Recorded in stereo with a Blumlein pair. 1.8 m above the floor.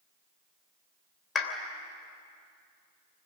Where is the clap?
25° left, 3 m.